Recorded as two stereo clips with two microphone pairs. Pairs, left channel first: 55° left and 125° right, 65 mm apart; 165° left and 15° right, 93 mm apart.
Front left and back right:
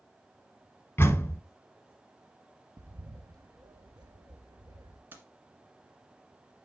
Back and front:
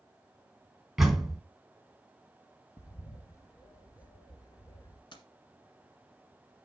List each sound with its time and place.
1.0 s a door slam: 70° left, 1.1 m
2.8 s a bird: 140° right, 0.9 m
5.1 s keys jangling: straight behind, 1.4 m